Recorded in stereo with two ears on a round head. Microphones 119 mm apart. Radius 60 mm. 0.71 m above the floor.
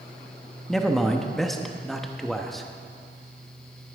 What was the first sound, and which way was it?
A man speaking, centre (ahead or behind).